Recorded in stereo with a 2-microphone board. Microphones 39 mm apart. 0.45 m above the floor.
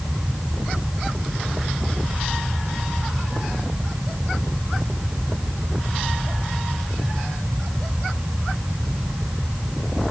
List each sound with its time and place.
Only background noise.